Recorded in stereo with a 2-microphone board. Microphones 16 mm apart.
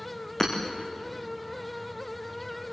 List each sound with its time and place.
0.4 s hammering: 25° left (ahead or behind), 4 m